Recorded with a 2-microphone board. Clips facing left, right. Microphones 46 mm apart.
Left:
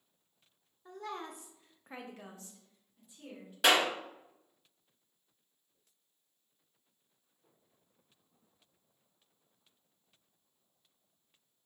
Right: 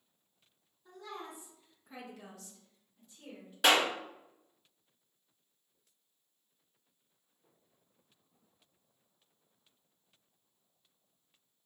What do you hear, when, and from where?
0.8 s a woman speaking: 50° left (ahead or behind), 0.6 m; by 3.5 s 10° left (ahead or behind), 1.3 m
3.6 s a clap: centre (ahead or behind), 1.6 m